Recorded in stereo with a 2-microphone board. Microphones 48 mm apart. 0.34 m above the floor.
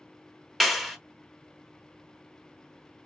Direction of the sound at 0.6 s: 5° left (ahead or behind).